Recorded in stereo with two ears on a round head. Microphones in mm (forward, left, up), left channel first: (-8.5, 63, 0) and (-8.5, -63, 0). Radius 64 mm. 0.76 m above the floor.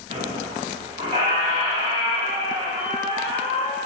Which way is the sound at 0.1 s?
40° right (ahead or behind).